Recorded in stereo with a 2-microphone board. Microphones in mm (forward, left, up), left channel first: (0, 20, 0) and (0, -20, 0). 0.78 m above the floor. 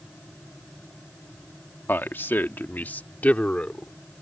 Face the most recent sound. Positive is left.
turn(degrees=30)  # may be behind; listen again after turning